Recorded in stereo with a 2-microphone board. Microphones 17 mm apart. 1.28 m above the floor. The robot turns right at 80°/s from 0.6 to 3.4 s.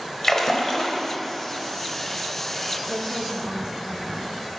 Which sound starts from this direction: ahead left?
A splash, at 0.2 s.